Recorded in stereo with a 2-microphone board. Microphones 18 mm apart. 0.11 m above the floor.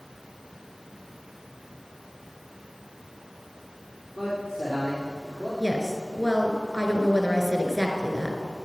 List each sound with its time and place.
4.2 s a man speaking: 5° right (ahead or behind), 4 m; by 5.5 s 10° right (ahead or behind), 5 m
5.6 s a woman speaking: 20° left (ahead or behind), 1.6 m